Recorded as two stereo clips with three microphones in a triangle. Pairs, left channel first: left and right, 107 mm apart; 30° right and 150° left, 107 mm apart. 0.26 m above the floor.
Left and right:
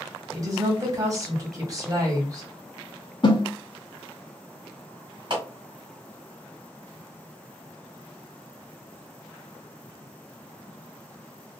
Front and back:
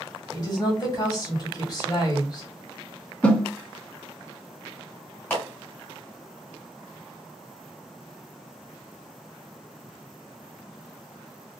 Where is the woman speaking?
55° right, 1.7 m.